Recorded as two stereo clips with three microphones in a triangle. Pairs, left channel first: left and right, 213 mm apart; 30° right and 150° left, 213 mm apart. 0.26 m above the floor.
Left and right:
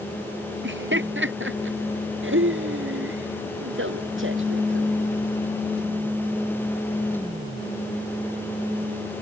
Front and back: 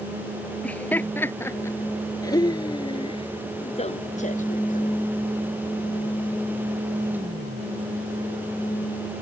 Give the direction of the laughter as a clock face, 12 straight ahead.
4 o'clock.